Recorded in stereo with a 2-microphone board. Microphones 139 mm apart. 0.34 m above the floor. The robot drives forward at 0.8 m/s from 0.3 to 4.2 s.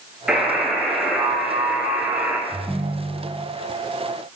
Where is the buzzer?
5° right (ahead or behind), 5 m; by 2.4 s 10° right (ahead or behind), 3.5 m.